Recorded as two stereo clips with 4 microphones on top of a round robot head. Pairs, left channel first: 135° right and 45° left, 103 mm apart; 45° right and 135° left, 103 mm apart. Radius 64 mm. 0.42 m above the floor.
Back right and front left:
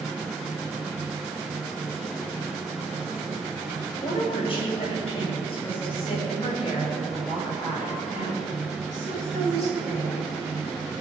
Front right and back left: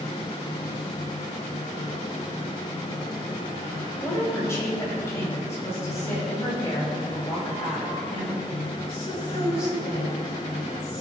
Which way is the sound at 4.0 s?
105° right.